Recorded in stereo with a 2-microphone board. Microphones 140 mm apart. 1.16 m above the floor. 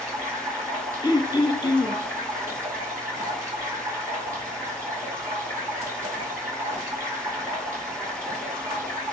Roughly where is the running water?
Centre.